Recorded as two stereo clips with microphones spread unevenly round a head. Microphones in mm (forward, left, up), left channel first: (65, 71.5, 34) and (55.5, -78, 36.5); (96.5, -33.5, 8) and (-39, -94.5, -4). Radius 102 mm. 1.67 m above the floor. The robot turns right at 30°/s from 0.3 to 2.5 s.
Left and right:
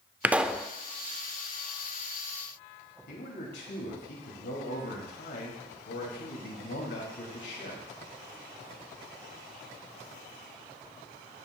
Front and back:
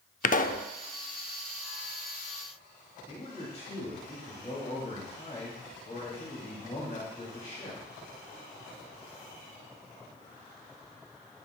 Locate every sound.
0.2 s a pop: 15° right, 0.6 m; by 0.7 s straight ahead, 0.6 m
3.1 s a man speaking: 85° left, 2.5 m